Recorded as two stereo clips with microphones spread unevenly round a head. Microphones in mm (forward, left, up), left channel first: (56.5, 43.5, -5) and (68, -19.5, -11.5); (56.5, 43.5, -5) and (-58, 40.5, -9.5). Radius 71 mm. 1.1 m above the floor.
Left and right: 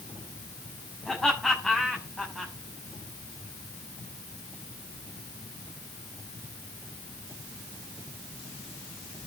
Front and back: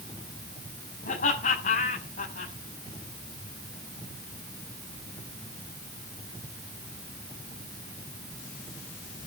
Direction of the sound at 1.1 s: 10° left.